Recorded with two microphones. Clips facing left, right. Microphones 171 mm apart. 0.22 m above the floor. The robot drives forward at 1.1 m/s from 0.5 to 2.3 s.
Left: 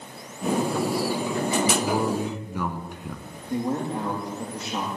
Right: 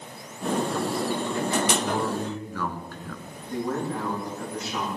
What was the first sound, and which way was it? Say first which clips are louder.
A man speaking: left 2 dB; 20° left (ahead or behind).